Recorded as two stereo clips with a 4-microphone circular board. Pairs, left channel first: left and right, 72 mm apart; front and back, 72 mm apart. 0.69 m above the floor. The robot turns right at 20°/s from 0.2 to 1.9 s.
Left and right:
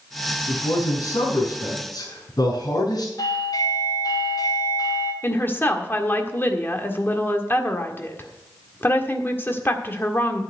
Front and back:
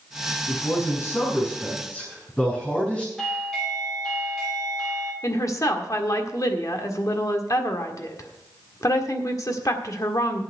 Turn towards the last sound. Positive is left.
turn(degrees=35)